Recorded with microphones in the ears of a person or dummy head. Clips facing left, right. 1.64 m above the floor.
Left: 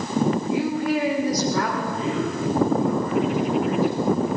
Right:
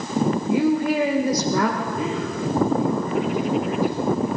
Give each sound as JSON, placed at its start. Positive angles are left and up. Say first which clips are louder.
{"t": 0.5, "sound": "a woman speaking", "louder": "right 3 dB", "side_deg": -85, "distance_m": 2.0}
{"t": 1.8, "sound": "a man speaking", "louder": "left 1 dB", "side_deg": -20, "distance_m": 6.5}